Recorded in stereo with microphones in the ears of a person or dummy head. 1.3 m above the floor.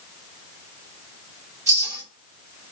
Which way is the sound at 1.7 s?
15° right (ahead or behind).